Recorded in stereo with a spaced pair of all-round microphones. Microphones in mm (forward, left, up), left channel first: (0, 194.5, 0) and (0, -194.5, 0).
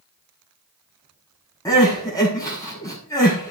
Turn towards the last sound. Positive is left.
turn(degrees=10)  # may be behind; listen again after turning